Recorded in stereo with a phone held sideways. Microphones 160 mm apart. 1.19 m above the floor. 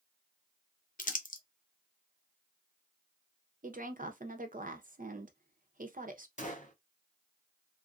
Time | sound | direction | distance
1.0 | crumpling | 60° left (ahead or behind) | 0.6 m
3.6 | a woman speaking | 60° right (ahead or behind) | 0.8 m
6.4 | a gunshot | 55° left (ahead or behind) | 1.1 m